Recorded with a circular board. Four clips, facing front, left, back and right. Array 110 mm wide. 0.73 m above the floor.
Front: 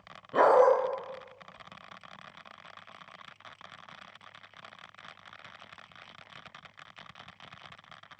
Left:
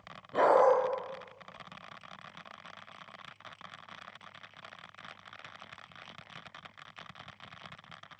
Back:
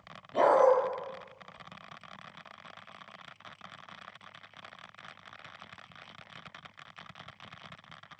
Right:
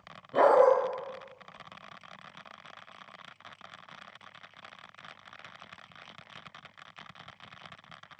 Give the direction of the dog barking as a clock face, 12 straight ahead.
12 o'clock.